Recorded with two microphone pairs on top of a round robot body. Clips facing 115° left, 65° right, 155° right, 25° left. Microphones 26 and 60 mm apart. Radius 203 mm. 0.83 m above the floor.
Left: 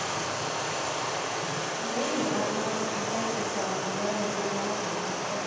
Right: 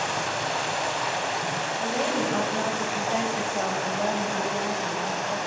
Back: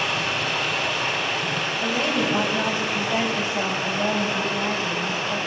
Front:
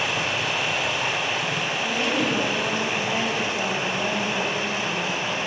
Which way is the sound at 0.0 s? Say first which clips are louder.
Right 4 dB, even; 60° right.